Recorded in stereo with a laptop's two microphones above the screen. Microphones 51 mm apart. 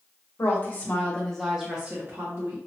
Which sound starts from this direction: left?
A woman speaking, at 0.4 s.